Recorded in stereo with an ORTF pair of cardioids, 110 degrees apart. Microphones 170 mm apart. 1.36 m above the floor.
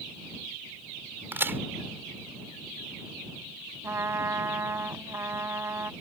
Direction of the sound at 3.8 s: 15° right.